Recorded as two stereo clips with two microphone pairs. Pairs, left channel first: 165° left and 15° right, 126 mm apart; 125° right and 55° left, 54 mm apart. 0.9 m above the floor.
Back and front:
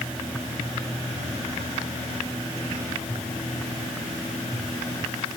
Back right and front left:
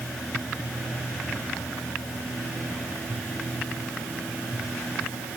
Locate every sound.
Only background noise.